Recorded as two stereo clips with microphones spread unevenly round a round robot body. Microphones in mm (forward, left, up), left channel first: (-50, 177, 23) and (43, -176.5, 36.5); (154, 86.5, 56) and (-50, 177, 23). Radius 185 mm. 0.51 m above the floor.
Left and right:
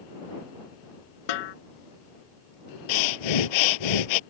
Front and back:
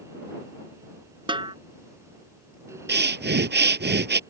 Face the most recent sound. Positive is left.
turn(degrees=115)